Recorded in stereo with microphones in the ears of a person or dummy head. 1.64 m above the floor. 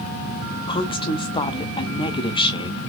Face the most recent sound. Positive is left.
turn(degrees=20)  # may be behind; listen again after turning